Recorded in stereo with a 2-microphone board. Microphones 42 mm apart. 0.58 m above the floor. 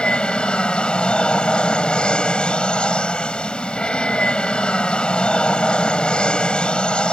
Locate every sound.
0.0 s an aircraft: 25° left (ahead or behind)